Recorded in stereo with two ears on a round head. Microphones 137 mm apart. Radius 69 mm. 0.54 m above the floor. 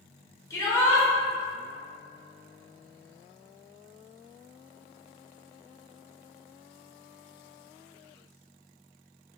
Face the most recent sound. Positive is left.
turn(degrees=20)  # may be behind; listen again after turning